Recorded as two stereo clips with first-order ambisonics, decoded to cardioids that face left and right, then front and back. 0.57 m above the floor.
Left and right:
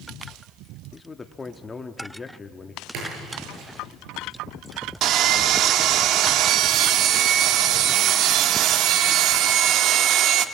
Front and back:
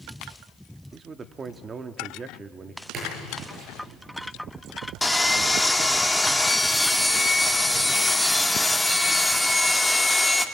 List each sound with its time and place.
0.9 s a man speaking: 145° left, 0.6 m
2.9 s a splash: 125° right, 10 m
5.0 s sawing: 85° right, 0.8 m